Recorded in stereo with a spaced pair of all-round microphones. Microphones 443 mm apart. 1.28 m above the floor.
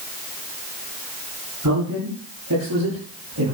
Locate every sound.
1.6 s a man speaking: 45° right (ahead or behind), 8 m; by 3.5 s 55° right (ahead or behind), 8 m